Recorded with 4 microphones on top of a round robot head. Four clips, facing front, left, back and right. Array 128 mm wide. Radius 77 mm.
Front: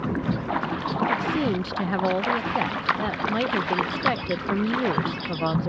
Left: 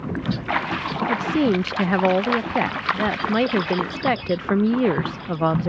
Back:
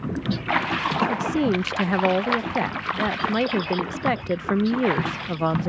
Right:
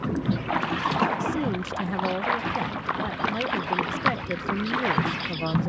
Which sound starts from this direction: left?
A woman speaking, at 1.1 s.